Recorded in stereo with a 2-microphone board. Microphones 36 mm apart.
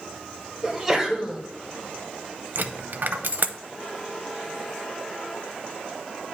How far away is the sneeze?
About 1.5 m.